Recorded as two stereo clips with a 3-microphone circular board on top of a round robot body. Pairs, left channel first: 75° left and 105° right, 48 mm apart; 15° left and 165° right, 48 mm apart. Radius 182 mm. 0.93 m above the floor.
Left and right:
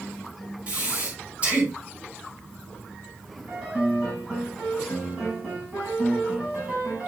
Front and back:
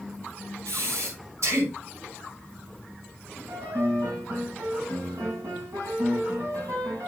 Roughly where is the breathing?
Behind.